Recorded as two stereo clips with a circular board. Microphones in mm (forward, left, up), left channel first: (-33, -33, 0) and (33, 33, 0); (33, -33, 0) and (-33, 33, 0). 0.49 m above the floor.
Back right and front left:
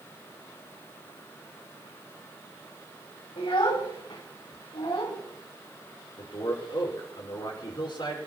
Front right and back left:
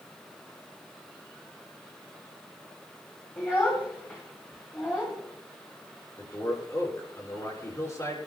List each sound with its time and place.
3.4 s a child speaking: 115° right, 2 m
6.2 s a man speaking: 95° right, 6.5 m